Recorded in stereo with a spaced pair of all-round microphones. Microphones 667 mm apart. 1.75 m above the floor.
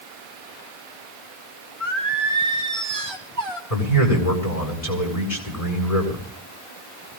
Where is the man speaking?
80° left, 5.5 m.